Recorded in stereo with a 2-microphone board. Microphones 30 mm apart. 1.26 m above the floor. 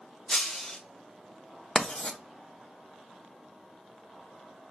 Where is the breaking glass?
15° left (ahead or behind), 1.1 m.